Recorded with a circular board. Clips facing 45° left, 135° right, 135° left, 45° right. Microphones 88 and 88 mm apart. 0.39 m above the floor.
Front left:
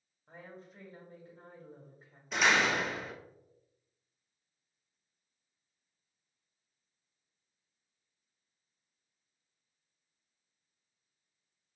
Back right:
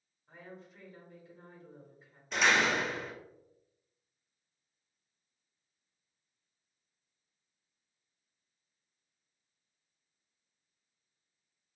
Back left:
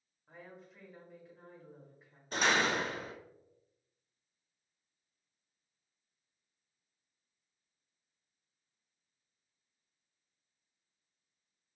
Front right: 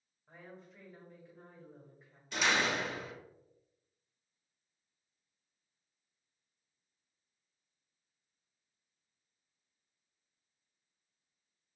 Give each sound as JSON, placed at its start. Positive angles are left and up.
{"t": 0.3, "sound": "a woman speaking", "azimuth_deg": 50, "distance_m": 1.7}
{"t": 2.3, "sound": "a door slam", "azimuth_deg": 135, "distance_m": 0.6}